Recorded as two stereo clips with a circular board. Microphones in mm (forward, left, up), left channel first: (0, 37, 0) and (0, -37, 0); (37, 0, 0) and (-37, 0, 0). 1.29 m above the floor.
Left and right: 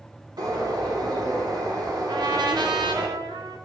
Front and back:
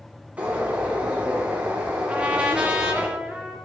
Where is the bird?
110° right, 2.5 m.